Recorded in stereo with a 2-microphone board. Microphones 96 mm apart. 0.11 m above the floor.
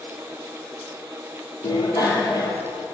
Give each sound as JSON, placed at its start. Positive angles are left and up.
{"t": 1.6, "sound": "a bicycle bell", "side_deg": 40, "distance_m": 2.5}